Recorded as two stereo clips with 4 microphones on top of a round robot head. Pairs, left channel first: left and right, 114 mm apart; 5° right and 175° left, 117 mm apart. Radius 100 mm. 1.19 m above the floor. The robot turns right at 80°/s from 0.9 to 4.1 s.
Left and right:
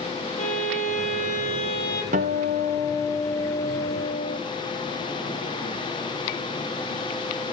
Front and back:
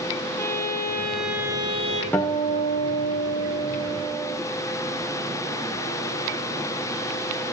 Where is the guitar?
85° right, 1.3 m; by 4.4 s 70° left, 1.3 m.